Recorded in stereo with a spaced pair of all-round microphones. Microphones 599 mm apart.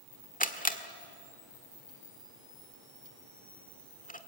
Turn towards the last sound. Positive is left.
turn(degrees=15)  # may be behind; listen again after turning